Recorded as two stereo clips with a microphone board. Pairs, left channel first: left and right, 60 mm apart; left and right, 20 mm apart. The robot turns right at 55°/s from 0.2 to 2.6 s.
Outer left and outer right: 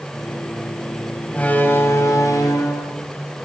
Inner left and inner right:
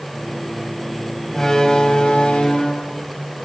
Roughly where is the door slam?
Ahead.